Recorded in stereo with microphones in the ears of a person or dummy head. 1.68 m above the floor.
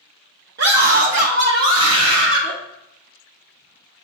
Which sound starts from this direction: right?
A scream, at 0.6 s.